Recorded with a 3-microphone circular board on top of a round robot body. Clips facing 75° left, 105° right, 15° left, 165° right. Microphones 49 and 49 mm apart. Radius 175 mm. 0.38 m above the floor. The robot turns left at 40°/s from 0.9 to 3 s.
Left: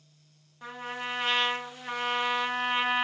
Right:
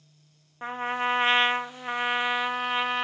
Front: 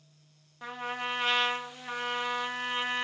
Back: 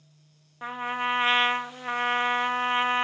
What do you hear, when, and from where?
0.6 s a trumpet: 115° right, 0.9 m; by 3.0 s 160° left, 0.9 m